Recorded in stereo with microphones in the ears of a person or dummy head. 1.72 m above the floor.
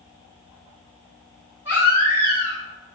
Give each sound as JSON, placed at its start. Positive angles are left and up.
{"t": 1.6, "sound": "a baby crying", "side_deg": -10, "distance_m": 1.4}